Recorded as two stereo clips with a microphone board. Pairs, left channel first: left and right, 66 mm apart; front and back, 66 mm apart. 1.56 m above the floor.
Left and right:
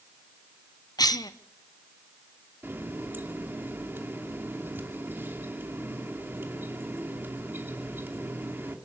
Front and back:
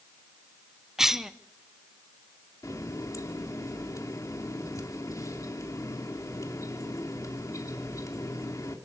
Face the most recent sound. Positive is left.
turn(degrees=-35)